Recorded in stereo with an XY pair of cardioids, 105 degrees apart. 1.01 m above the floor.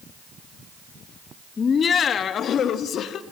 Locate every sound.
1.6 s laughter: 40° left, 1.0 m; by 3.2 s 70° left, 1.6 m